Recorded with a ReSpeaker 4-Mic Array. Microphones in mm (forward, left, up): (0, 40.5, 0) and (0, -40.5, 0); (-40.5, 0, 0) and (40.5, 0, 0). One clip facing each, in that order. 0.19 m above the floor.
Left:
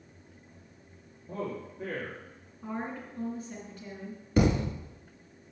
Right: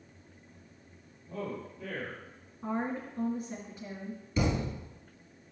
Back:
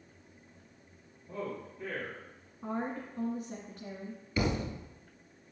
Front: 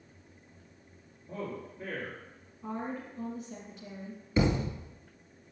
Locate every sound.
1.3 s a man speaking: 70° left, 4.5 m
2.6 s a woman speaking: 155° right, 2.5 m
4.4 s a thud: 60° left, 1.5 m